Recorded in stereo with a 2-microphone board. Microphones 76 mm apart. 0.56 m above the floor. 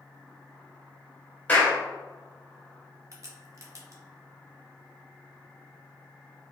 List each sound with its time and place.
1.5 s a clap: 20° left (ahead or behind), 1.7 m
3.1 s a crack: 45° right (ahead or behind), 0.8 m